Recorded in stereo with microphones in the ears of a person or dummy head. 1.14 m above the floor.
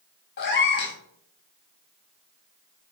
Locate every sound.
0.4 s a cat meowing: 60° left (ahead or behind), 0.8 m